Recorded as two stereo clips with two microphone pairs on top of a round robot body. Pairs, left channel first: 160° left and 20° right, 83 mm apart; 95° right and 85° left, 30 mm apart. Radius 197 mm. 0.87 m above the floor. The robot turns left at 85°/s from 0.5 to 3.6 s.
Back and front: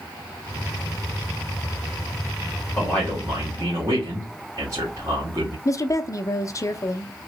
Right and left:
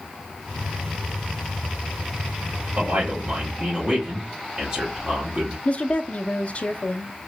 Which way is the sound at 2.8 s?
95° left.